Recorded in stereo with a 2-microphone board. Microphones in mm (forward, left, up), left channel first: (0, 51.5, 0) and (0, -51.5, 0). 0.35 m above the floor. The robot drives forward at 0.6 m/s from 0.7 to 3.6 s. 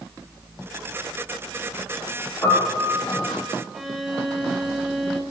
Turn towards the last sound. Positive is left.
turn(degrees=0)  # may be behind; listen again after turning